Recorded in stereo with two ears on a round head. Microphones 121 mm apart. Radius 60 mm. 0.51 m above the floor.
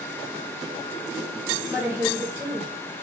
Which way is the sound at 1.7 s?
10° right (ahead or behind).